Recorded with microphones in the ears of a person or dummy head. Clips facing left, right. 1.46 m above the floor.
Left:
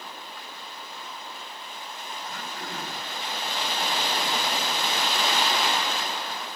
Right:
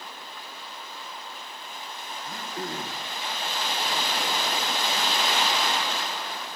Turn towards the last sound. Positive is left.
turn(degrees=-30)  # may be behind; listen again after turning